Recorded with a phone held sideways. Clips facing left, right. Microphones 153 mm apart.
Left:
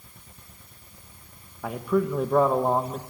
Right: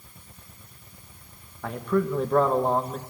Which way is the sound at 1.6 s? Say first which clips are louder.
Left 1 dB; 10° left (ahead or behind).